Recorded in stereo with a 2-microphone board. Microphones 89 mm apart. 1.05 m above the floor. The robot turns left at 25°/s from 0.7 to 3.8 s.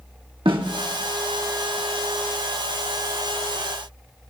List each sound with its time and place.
0.5 s a snare drum: 85° right, 2 m